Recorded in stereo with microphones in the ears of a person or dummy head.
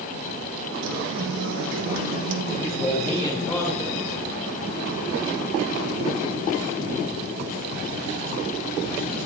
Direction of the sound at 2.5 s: 5° left (ahead or behind).